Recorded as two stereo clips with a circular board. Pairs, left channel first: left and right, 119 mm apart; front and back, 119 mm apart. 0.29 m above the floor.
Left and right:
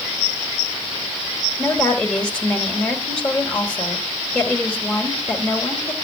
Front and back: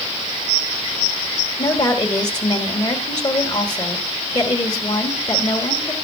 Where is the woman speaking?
10° left, 1.4 m.